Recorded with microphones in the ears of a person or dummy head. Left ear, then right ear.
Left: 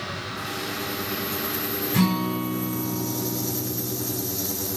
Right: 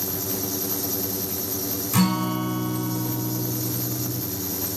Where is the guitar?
45° right (ahead or behind), 7.5 m.